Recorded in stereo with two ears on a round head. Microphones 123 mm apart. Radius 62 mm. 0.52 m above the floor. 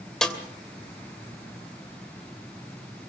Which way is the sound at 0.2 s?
5° left (ahead or behind).